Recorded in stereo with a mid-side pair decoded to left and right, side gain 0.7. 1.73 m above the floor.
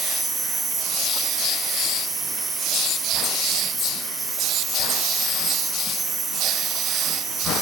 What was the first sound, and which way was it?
An insect, 20° right.